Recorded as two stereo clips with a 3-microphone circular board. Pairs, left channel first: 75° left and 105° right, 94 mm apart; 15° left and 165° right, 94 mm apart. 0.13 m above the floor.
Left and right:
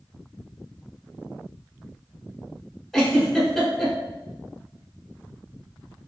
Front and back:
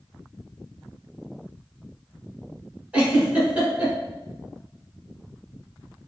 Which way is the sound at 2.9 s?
155° left.